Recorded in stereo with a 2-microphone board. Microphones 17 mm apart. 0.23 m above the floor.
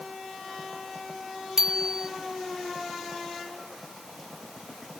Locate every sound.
1.6 s a bicycle bell: 30° right (ahead or behind)